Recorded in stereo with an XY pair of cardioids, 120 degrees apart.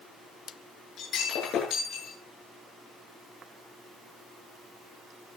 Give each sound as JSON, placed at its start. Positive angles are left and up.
{"t": 1.0, "sound": "breaking glass", "azimuth_deg": 55, "distance_m": 9.5}